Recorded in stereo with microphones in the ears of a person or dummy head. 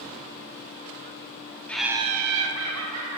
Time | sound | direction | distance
1.7 | laughter | 5° left (ahead or behind) | 0.6 m